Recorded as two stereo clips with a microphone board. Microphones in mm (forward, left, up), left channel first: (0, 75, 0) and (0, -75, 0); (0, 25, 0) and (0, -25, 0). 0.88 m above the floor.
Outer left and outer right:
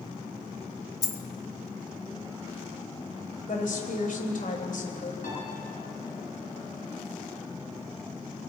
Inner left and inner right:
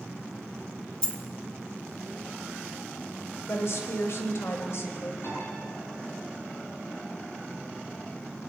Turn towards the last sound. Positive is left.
turn(degrees=60)  # may be behind; listen again after turning